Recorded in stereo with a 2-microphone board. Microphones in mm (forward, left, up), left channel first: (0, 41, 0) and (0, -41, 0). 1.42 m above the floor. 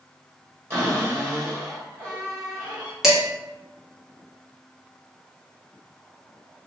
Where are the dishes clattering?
5° right (ahead or behind), 0.9 m.